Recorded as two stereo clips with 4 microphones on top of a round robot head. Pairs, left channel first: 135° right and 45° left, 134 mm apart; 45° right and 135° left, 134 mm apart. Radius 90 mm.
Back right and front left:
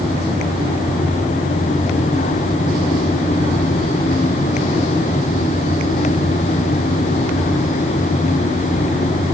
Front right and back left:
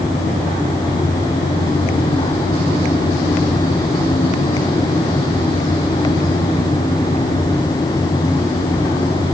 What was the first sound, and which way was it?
Only background noise.